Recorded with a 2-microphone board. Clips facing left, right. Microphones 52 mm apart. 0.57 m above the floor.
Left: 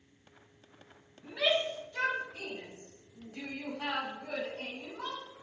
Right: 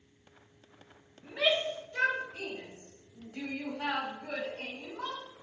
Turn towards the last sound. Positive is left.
turn(degrees=-50)  # may be behind; listen again after turning